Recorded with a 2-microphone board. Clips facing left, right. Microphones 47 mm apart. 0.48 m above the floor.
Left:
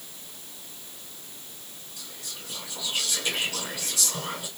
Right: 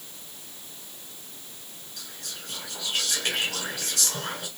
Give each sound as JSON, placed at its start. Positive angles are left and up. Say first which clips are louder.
{"t": 2.0, "sound": "whispering", "louder": "right 1 dB", "side_deg": -50, "distance_m": 2.0}